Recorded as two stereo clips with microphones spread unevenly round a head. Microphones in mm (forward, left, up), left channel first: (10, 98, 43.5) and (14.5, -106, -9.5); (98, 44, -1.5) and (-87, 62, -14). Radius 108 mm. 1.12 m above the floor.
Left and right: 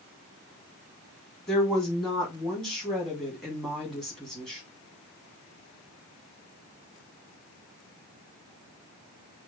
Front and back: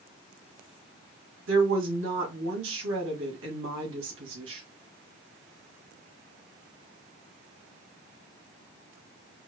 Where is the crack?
I don't hear a crack.